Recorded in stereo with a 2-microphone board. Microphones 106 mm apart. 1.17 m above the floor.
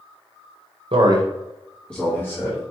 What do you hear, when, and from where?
0.9 s a man speaking: 55° right (ahead or behind), 0.9 m; by 2.6 s 25° left (ahead or behind), 1.9 m